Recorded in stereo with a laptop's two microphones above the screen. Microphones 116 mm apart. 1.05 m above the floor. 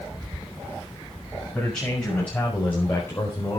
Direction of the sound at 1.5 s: 10° left (ahead or behind).